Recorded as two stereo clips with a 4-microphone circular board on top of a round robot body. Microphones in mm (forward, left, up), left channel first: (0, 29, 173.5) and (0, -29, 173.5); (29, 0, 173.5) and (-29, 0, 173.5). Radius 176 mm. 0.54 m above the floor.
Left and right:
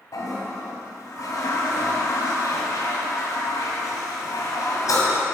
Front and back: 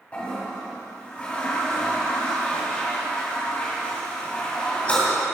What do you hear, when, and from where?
0.1 s a toilet flushing: 70° left, 2.5 m